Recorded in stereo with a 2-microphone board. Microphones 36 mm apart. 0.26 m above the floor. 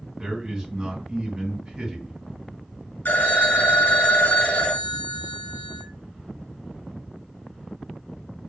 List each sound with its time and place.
0.2 s a man speaking: 20° right (ahead or behind), 1.9 m
3.0 s a phone ringing: 60° left (ahead or behind), 1.1 m